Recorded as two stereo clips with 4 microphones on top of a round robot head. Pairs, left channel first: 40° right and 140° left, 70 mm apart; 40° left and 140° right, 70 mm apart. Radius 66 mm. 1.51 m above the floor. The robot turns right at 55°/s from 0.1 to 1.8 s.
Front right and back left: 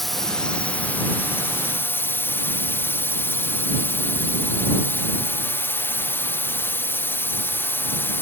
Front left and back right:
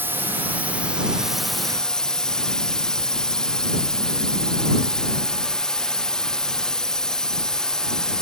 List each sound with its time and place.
0.0 s a drone: 125° right; by 8.2 s 30° right